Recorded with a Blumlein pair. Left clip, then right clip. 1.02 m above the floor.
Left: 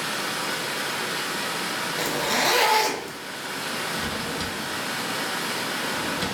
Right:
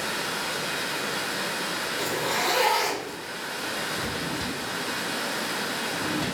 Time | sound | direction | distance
0.0 | running water | 10° left | 0.9 m
2.0 | a zipper | 60° left | 0.8 m
3.9 | a drawer | 35° left | 1.4 m